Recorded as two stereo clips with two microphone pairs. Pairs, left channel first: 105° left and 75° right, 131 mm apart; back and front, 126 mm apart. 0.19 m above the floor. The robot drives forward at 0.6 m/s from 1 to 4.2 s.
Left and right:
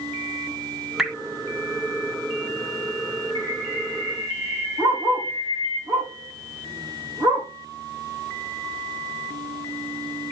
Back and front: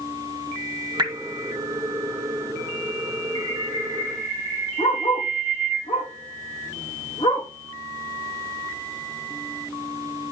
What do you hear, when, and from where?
1.0 s dripping: 10° left, 1.7 m; by 1.1 s 15° left, 1.6 m
3.4 s a bird: 125° right, 4.5 m; by 5.8 s 130° right, 5 m
4.8 s a dog barking: 145° right, 5 m